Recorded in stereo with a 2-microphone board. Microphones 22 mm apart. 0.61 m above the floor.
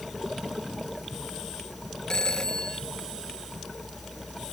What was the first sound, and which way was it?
A phone ringing, 25° left (ahead or behind).